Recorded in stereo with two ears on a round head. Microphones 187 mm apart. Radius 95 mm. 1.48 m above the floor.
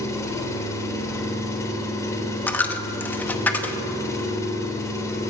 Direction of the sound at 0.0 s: 15° left (ahead or behind).